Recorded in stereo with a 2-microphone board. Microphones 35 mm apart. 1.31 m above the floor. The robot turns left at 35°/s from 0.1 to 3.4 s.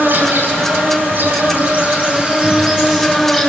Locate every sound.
0.0 s an insect: 60° right, 10 m; by 3.5 s 175° right, 10 m